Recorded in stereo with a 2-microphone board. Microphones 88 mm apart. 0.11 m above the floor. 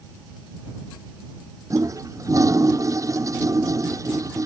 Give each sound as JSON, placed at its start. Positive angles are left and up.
{"t": 1.7, "sound": "a toilet flushing", "side_deg": -40}